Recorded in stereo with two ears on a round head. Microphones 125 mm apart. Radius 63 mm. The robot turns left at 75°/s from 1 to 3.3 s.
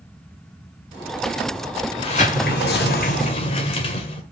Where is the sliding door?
140° left, 1.9 m; by 4.2 s 40° left, 1.9 m.